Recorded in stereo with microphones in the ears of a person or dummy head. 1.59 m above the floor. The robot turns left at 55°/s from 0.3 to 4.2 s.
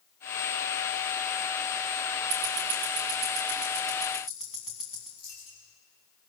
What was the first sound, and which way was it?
Ticking, 60° right (ahead or behind).